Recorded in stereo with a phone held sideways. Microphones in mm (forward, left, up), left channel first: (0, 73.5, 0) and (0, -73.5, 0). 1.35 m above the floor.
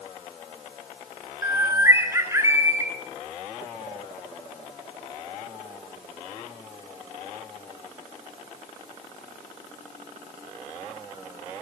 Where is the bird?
20° right (ahead or behind), 3 m.